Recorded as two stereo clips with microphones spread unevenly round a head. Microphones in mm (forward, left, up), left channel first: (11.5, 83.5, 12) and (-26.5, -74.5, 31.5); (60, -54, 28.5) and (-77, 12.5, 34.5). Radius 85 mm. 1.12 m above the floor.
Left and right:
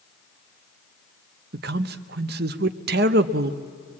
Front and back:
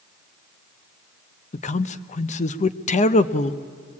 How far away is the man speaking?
About 0.8 m.